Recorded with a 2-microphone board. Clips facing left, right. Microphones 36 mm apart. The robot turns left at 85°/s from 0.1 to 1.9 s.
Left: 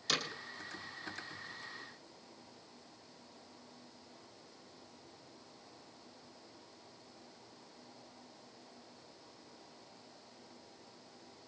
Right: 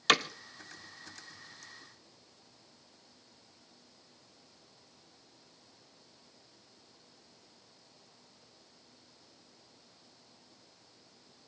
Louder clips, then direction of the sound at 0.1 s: Right 10 dB; 60° right (ahead or behind).